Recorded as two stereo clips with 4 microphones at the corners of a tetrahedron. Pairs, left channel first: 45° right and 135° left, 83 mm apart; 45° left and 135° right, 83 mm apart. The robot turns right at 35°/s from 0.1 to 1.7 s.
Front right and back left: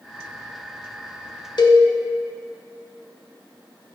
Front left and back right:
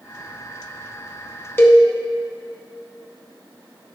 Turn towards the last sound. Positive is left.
turn(degrees=-10)